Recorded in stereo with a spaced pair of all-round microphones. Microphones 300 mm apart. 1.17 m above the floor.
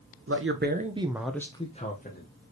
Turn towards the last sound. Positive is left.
turn(degrees=35)  # may be behind; listen again after turning